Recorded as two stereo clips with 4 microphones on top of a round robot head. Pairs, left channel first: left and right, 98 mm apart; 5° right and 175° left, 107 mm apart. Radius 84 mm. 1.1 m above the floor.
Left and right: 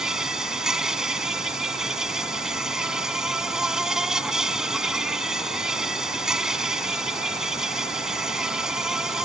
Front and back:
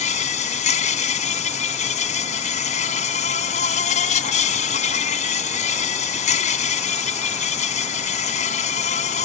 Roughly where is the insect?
Ahead.